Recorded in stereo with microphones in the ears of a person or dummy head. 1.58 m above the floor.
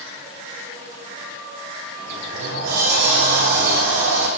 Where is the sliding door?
65° right (ahead or behind), 3 m.